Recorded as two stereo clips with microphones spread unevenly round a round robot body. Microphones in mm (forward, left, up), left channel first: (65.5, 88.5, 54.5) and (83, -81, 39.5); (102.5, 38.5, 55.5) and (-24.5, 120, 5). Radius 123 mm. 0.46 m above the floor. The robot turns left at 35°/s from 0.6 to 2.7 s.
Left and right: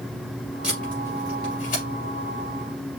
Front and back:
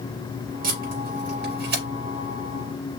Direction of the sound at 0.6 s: 170° right.